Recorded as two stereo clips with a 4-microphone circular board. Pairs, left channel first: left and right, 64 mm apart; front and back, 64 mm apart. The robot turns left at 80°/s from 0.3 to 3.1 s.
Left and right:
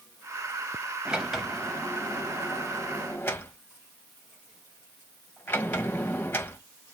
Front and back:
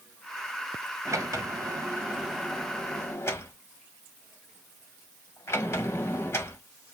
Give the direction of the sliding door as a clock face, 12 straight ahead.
5 o'clock.